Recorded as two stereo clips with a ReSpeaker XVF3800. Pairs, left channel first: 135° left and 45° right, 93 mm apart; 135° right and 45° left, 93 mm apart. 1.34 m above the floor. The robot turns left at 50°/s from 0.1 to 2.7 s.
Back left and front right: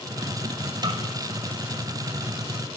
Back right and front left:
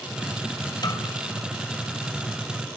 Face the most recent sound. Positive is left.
turn(degrees=175)